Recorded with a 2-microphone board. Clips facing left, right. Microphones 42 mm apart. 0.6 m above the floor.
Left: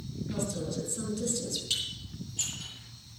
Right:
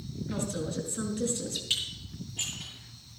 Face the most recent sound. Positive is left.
turn(degrees=-25)  # may be behind; listen again after turning